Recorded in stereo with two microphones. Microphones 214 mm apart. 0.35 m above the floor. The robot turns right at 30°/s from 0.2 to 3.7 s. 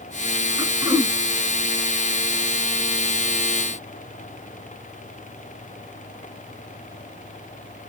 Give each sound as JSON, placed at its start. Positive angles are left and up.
{"t": 0.6, "sound": "throat clearing", "side_deg": -20, "distance_m": 0.9}